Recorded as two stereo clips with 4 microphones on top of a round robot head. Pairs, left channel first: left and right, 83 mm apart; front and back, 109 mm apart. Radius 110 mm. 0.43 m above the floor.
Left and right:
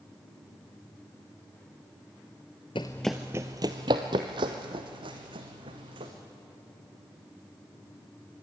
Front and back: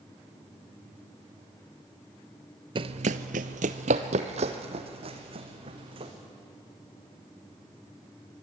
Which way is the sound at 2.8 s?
145° left.